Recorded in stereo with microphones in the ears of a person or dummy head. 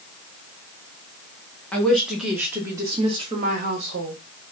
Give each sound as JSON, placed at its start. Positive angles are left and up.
{"t": 1.7, "sound": "a woman speaking", "side_deg": 0, "distance_m": 1.8}